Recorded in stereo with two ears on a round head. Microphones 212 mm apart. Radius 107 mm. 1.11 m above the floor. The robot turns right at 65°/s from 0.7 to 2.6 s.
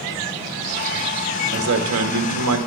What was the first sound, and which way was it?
A man speaking, 135° right.